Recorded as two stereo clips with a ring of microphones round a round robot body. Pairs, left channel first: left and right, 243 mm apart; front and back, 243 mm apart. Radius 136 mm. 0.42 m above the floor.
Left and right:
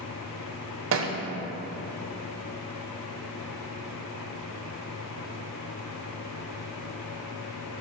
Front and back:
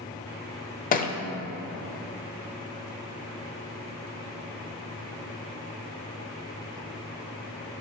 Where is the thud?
55° right, 0.7 m.